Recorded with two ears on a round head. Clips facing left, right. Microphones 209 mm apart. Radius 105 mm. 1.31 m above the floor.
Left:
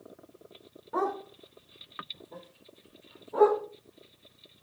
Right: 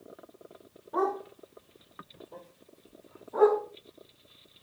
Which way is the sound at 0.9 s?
65° left (ahead or behind).